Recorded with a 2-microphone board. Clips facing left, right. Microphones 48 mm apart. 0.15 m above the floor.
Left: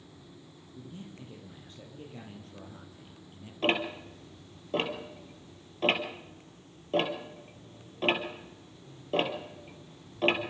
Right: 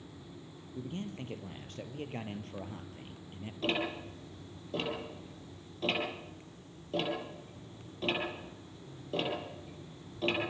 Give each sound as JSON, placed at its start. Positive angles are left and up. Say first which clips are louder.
{"t": 0.8, "sound": "a man speaking", "louder": "right 6 dB", "side_deg": -70, "distance_m": 4.0}
{"t": 3.6, "sound": "ticking", "louder": "left 4 dB", "side_deg": 40, "distance_m": 3.5}